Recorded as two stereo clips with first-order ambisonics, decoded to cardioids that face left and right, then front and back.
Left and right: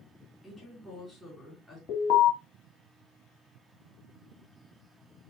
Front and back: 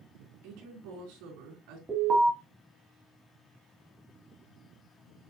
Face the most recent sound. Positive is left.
turn(degrees=105)